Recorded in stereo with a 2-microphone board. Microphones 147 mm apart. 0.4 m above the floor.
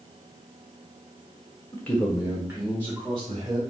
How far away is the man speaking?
About 1.0 m.